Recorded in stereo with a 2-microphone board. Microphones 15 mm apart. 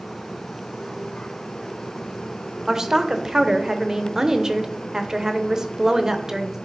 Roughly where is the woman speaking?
Right.